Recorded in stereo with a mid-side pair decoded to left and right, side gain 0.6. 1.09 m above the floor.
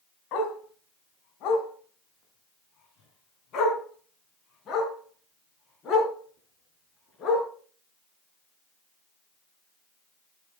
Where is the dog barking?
70° left, 4 m; by 7.5 s 45° left, 7 m.